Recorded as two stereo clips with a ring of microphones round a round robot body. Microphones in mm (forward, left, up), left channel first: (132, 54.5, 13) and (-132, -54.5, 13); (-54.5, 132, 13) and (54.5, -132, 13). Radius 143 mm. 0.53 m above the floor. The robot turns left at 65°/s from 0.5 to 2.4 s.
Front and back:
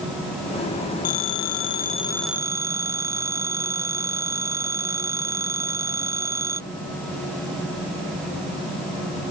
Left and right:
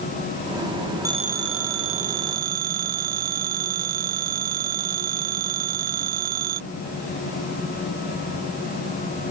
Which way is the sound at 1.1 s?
10° left.